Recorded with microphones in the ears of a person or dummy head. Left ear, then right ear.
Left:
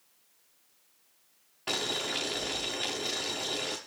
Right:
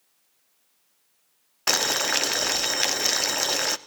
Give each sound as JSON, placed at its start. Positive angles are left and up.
{"t": 1.7, "sound": "boiling", "side_deg": -50, "distance_m": 0.8}